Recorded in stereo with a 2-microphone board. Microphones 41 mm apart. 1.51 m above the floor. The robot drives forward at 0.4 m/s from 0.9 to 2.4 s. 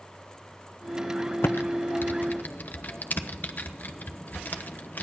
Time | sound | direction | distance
1.4 | typing on a keyboard | 65° left (ahead or behind) | 0.7 m